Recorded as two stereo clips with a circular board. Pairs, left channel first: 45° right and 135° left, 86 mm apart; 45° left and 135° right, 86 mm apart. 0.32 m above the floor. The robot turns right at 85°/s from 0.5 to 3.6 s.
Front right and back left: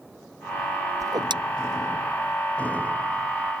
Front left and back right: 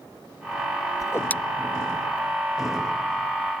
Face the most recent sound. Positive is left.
turn(degrees=-50)